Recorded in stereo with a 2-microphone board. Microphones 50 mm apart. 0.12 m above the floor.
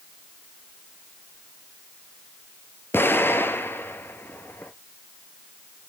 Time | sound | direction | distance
2.9 | an explosion | 50° left (ahead or behind) | 0.8 m